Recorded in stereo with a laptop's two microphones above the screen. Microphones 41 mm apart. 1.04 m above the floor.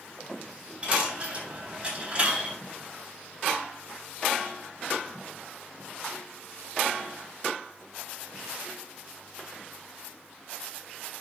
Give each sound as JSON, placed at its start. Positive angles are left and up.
{"t": 0.8, "sound": "a dropped coin", "side_deg": -30, "distance_m": 4.0}